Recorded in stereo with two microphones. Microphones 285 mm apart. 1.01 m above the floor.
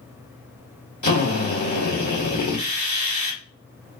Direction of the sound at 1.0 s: 85° left.